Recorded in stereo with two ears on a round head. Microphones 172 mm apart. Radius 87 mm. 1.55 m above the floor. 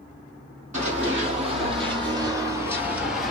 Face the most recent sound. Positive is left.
turn(degrees=0)  # may be behind; listen again after turning